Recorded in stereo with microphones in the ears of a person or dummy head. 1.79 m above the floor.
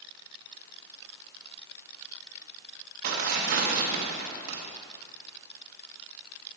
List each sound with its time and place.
3.0 s tearing paper: 50° right (ahead or behind), 1.4 m